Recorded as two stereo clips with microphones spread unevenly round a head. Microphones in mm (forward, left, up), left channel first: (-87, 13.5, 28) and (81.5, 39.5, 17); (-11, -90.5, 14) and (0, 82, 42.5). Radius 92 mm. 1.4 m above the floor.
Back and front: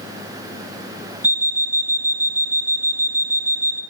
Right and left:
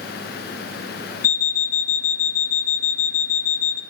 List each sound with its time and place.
1.2 s an alarm clock: 70° right, 0.9 m